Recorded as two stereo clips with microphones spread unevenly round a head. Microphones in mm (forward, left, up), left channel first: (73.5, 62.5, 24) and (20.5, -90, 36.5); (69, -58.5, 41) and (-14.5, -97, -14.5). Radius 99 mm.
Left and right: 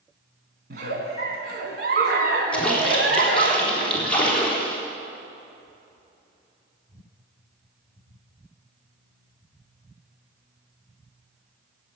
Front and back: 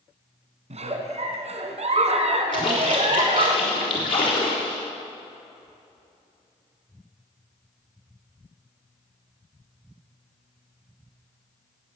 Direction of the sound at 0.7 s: 130° right.